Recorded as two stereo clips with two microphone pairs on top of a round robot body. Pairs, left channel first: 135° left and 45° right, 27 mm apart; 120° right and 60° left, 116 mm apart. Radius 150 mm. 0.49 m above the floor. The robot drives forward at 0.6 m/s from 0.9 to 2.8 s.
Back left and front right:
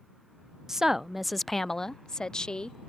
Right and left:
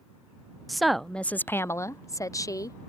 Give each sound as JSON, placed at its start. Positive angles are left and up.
{"t": 0.7, "sound": "a woman speaking", "azimuth_deg": -10}